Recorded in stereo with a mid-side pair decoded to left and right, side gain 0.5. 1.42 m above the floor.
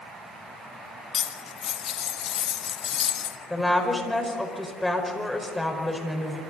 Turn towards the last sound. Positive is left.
turn(degrees=10)